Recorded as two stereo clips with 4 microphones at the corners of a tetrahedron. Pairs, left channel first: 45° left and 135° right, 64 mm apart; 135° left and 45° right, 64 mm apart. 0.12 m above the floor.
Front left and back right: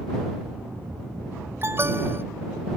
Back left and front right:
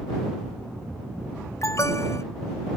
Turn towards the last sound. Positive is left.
turn(degrees=175)